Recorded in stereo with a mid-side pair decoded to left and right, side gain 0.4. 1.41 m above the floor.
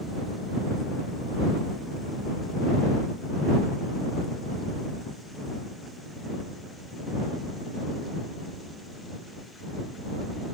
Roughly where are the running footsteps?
I don't hear running footsteps.